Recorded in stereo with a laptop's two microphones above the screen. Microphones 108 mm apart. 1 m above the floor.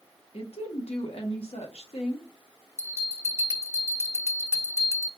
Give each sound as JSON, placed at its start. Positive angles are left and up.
{"t": 0.3, "sound": "a woman speaking", "side_deg": 65, "distance_m": 1.0}
{"t": 2.8, "sound": "a bell", "side_deg": -25, "distance_m": 1.3}